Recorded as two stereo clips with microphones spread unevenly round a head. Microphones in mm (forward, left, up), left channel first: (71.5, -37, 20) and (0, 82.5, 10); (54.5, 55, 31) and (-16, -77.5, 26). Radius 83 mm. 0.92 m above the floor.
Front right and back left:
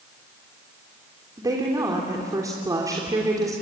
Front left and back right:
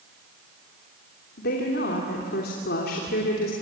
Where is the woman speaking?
55° left, 3 m.